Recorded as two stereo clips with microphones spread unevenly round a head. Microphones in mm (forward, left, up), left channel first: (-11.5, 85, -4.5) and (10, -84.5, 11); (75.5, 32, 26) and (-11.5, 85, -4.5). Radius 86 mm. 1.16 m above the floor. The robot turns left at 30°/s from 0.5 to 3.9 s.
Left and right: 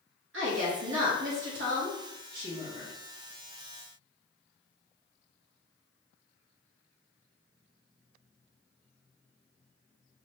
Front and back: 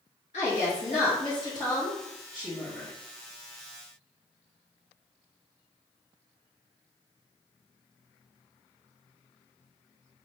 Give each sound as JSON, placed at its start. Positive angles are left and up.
{"t": 0.3, "sound": "a woman speaking", "azimuth_deg": -70, "distance_m": 1.1}